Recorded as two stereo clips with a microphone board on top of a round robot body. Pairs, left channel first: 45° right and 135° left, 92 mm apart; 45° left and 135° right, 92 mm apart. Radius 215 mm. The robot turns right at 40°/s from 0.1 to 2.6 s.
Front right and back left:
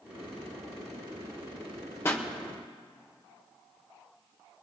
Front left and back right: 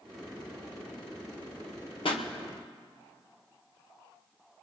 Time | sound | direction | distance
2.0 | a pop | 20° left | 1.0 m